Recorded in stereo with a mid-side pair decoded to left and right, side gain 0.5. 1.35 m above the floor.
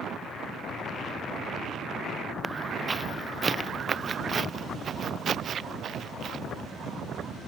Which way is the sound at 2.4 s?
20° right.